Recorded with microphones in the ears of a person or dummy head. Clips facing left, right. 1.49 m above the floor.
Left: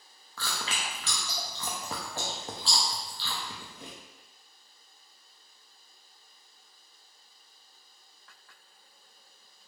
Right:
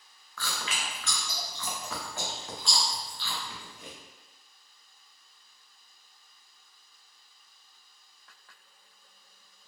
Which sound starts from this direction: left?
Chewing, at 0.4 s.